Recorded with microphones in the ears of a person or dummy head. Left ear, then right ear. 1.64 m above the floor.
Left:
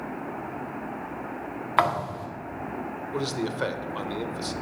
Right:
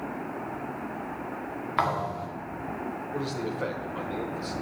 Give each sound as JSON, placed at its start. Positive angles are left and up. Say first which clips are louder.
{"t": 1.8, "sound": "a thud", "louder": "left 3 dB", "side_deg": 25, "distance_m": 1.6}
{"t": 3.1, "sound": "a man speaking", "louder": "left 4 dB", "side_deg": 35, "distance_m": 1.0}